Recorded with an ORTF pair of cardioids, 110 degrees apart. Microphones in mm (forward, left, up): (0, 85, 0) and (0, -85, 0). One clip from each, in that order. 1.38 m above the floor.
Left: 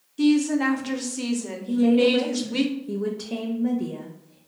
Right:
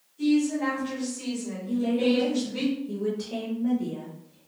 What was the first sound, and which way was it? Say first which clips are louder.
A woman speaking: left 4 dB; 70° left.